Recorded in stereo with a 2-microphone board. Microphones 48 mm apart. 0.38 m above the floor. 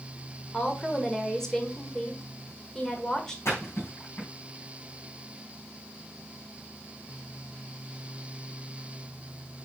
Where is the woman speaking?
10° left (ahead or behind), 1.4 m.